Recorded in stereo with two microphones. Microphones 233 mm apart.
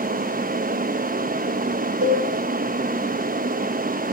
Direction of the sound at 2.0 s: 70° right (ahead or behind).